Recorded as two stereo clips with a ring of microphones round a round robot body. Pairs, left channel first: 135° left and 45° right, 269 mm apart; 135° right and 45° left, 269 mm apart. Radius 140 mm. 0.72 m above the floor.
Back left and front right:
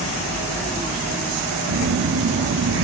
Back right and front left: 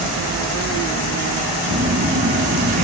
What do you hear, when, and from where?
1.7 s a phone buzzing: 15° right, 2 m